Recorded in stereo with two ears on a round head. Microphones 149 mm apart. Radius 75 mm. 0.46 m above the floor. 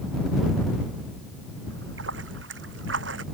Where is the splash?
85° right.